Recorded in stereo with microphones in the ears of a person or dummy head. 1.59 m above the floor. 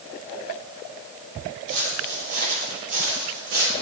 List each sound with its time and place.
1.7 s footsteps: 65° right (ahead or behind), 4 m; by 3.7 s 70° right (ahead or behind), 5 m